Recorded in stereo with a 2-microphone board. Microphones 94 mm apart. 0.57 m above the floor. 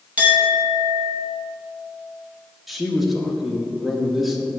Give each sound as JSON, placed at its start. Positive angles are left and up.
{"t": 0.2, "sound": "a clink", "side_deg": -20, "distance_m": 2.5}
{"t": 2.7, "sound": "a man speaking", "side_deg": 0, "distance_m": 1.0}